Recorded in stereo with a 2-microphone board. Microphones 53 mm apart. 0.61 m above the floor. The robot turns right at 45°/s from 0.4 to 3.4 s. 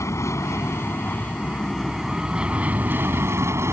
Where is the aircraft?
70° left (ahead or behind); by 3.7 s 60° right (ahead or behind).